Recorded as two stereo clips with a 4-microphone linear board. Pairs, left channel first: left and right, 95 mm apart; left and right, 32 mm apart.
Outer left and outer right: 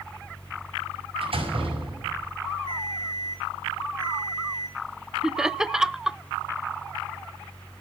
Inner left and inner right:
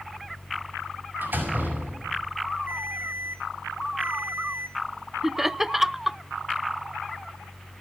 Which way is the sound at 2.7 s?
80° right.